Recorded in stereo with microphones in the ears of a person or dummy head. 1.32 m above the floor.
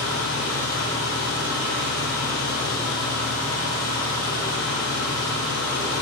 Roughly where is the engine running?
Left.